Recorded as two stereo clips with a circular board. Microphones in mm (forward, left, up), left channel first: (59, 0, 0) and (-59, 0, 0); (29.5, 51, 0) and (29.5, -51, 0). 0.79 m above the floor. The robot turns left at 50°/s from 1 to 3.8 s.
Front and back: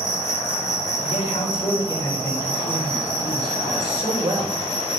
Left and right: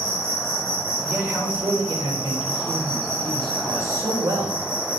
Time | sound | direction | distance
0.0 | an insect | 5° left | 4.5 m
1.1 | a man speaking | 15° right | 3.5 m